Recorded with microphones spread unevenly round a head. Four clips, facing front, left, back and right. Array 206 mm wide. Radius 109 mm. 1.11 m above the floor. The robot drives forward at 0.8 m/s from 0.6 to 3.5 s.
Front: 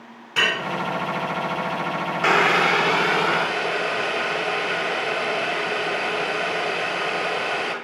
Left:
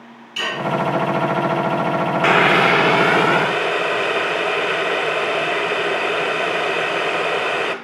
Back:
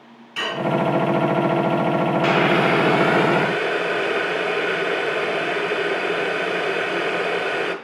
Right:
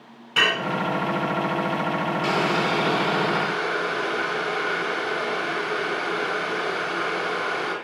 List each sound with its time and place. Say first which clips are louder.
0.4 s dishes clattering: right 2 dB, front 2 dB; 50° right, 7 m
2.2 s boiling: left 10 dB, front 2 dB; 60° left, 0.8 m; by 7.8 s 150° left, 1.1 m